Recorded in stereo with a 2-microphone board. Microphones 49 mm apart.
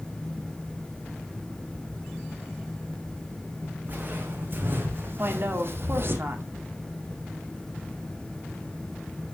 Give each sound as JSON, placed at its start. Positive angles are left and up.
{"t": 3.9, "sound": "footsteps", "side_deg": -40, "distance_m": 3.0}
{"t": 5.2, "sound": "a woman speaking", "side_deg": -50, "distance_m": 1.9}